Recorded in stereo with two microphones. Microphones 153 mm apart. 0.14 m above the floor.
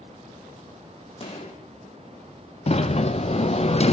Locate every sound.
1.2 s a gunshot: 40° left (ahead or behind), 5.5 m
2.7 s a sliding door: 45° left (ahead or behind), 1.7 m